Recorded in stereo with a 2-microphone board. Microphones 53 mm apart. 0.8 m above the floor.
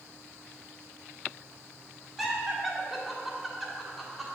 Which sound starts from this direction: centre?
Laughter, at 2.2 s.